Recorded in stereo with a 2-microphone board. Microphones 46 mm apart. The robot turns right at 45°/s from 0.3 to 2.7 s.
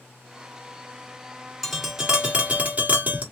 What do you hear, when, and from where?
1.6 s tapping: 175° left, 1.6 m; by 3.2 s 135° right, 1.6 m